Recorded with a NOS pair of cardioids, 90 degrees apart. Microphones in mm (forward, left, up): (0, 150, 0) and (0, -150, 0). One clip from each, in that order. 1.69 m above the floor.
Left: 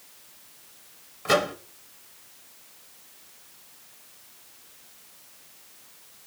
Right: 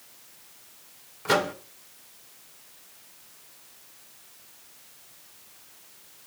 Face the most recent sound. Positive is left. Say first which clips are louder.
# left 1 dB
turn(degrees=0)